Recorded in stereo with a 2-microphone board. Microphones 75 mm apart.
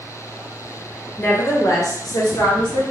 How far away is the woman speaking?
About 0.9 m.